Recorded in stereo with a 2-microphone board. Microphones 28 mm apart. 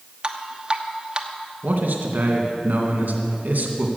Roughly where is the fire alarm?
I don't hear a fire alarm.